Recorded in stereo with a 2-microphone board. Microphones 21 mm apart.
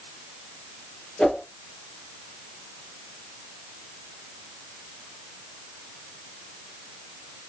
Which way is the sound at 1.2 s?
75° left (ahead or behind).